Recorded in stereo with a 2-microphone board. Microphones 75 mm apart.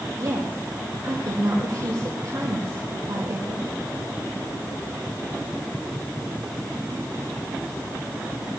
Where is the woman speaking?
55° right (ahead or behind), 4.5 m.